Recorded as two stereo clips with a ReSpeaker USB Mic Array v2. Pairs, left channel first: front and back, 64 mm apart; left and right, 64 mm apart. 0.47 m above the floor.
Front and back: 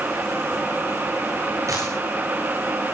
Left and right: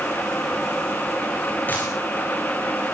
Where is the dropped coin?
150° left, 8.5 m.